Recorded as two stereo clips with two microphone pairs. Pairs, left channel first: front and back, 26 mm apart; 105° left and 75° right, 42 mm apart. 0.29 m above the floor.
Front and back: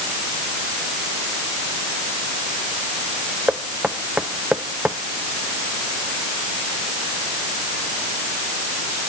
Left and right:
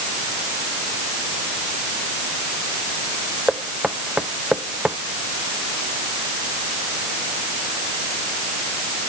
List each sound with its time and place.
3.5 s knocking: 140° right